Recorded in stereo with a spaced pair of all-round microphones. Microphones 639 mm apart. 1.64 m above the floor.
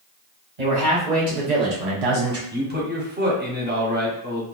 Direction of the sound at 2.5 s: 15° right (ahead or behind).